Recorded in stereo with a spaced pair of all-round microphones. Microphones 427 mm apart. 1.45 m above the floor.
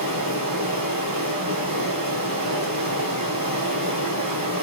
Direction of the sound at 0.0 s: 50° right (ahead or behind).